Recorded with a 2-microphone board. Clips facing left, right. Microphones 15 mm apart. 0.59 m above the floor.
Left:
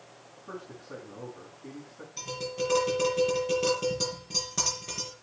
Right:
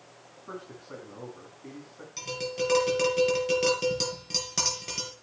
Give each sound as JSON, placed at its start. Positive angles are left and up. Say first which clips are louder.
{"t": 0.5, "sound": "a man speaking", "louder": "even", "side_deg": -25, "distance_m": 5.0}
{"t": 2.2, "sound": "tapping", "louder": "right 2 dB", "side_deg": -50, "distance_m": 7.0}